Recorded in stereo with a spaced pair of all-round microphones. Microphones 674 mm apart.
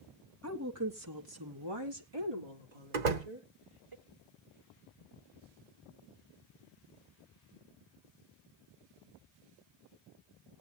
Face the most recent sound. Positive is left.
turn(degrees=-85)